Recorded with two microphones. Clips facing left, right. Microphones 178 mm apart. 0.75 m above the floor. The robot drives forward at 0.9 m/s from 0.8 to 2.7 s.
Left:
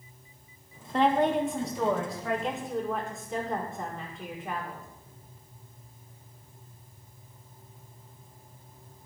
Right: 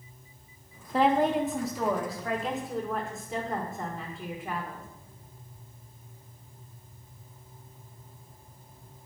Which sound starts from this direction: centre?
A woman speaking, at 0.9 s.